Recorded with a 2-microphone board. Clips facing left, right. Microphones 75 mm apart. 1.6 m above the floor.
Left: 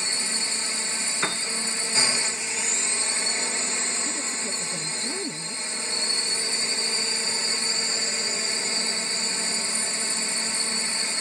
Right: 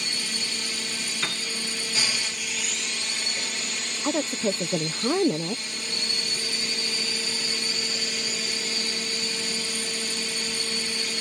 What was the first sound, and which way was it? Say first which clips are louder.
A drone: left 1 dB; 30° left (ahead or behind).